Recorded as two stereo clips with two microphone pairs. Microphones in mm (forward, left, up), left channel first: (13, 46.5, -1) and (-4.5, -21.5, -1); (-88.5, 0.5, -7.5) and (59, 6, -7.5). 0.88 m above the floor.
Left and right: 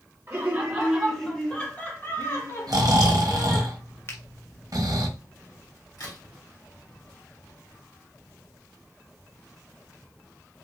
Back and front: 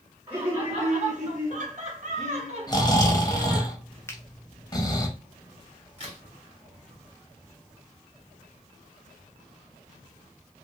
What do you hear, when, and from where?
0.3 s laughter: 45° right, 1.1 m; by 3.7 s 55° left, 1.7 m
2.7 s snoring: 120° right, 0.7 m
4.1 s a finger snap: 115° left, 0.6 m
6.0 s a crack: 45° left, 1.9 m